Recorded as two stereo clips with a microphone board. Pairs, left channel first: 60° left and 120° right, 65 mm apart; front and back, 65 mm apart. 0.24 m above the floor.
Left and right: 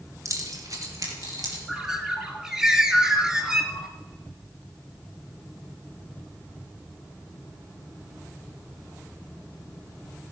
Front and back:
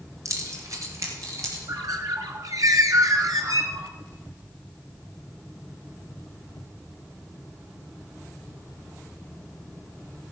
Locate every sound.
0.2 s keys jangling: 155° right, 2.5 m; by 1.6 s 145° right, 4.5 m
1.7 s a bird: 160° left, 1.6 m